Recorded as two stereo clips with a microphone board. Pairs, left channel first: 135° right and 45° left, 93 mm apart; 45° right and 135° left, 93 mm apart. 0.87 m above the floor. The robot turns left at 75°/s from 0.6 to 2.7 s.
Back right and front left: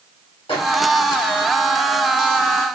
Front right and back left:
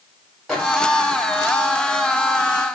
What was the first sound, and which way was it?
A microwave, 135° right.